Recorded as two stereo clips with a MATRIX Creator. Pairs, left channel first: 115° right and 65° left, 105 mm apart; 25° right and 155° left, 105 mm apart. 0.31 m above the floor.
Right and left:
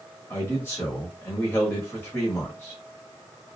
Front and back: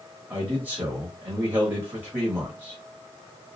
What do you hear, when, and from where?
0.3 s a man speaking: 155° right, 1.0 m